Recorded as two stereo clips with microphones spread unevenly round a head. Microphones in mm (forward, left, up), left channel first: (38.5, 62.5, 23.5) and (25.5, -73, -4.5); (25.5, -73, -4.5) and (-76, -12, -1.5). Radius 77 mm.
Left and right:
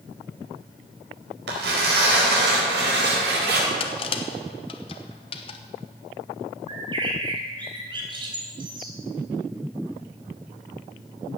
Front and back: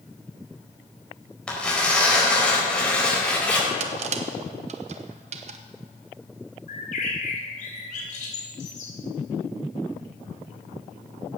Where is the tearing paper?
115° right, 4.5 m.